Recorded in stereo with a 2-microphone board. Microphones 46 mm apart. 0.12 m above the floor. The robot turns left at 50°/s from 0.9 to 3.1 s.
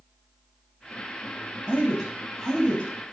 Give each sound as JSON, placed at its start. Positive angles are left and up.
{"t": 1.7, "sound": "a man speaking", "azimuth_deg": -150, "distance_m": 3.5}